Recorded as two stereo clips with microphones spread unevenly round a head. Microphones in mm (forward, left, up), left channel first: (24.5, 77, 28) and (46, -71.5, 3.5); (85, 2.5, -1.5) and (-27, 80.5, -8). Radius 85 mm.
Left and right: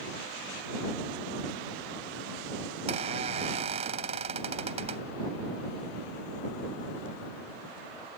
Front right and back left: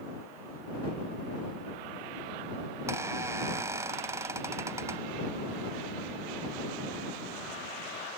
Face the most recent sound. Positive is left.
turn(degrees=-140)